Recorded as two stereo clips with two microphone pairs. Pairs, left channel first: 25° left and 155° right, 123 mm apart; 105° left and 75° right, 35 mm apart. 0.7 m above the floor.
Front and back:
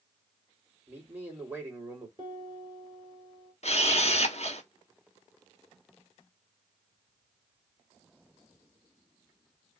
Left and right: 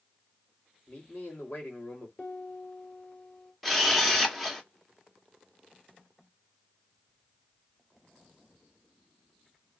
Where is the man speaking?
135° left, 2.5 m.